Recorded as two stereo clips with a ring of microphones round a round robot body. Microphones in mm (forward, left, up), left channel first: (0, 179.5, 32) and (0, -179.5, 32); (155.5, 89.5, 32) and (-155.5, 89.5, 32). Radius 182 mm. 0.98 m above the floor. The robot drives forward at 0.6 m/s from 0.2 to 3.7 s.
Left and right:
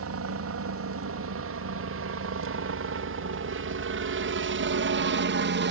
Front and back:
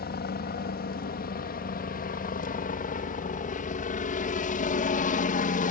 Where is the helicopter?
55° right; by 5.7 s 50° right.